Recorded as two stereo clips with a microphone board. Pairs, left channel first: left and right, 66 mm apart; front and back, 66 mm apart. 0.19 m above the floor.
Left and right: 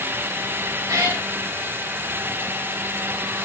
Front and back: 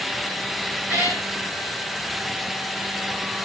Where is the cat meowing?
115° right, 7 m.